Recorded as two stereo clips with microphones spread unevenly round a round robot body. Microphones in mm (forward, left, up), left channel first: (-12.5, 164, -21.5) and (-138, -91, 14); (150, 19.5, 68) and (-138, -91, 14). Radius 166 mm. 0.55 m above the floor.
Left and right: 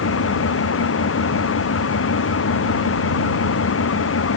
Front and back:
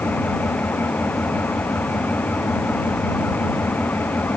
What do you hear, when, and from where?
0.0 s an engine running: 105° left